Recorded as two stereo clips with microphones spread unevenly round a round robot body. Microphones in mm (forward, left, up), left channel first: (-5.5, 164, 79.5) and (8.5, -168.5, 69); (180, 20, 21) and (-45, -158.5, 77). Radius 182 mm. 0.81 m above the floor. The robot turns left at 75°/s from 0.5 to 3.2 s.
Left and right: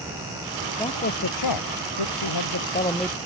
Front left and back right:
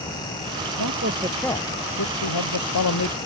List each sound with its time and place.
0.8 s a man speaking: 175° left; by 3.2 s 5° right